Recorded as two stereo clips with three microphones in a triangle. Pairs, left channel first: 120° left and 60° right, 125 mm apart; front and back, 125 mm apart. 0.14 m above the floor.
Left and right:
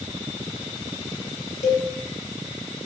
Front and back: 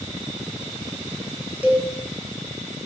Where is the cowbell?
100° left, 0.5 m.